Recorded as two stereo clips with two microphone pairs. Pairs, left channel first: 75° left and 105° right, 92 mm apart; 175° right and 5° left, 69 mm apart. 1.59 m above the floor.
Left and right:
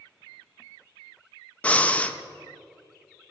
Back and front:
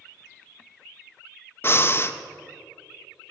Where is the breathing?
150° left, 0.6 m.